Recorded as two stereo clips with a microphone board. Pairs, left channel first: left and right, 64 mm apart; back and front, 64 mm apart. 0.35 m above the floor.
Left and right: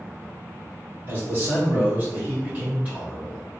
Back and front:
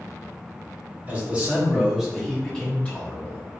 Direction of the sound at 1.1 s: 55° right.